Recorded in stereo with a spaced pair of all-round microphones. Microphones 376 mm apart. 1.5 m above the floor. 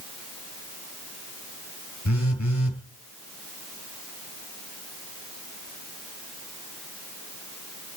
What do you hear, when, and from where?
2.0 s a phone buzzing: 45° left (ahead or behind), 4 m